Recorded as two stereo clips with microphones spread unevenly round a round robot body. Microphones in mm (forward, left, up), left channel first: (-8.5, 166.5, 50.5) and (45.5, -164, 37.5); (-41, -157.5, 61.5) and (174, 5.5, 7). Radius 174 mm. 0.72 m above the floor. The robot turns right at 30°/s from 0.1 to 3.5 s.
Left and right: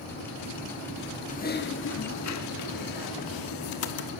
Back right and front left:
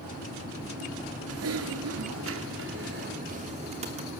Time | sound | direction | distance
1.3 | typing on a keyboard | 30° left | 1.4 m